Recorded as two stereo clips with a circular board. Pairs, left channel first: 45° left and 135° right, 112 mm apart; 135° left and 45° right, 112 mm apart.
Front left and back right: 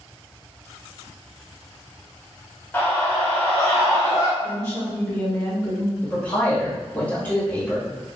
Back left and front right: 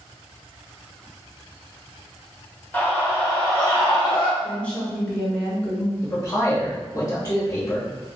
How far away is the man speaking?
About 1.7 m.